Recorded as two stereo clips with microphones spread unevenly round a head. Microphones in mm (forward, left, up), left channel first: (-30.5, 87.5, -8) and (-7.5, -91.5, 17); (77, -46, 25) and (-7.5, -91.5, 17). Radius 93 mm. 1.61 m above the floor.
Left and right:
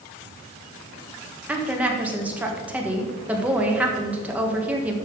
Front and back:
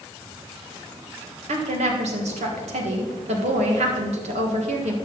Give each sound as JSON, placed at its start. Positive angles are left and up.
{"t": 1.5, "sound": "a woman speaking", "azimuth_deg": -165, "distance_m": 1.7}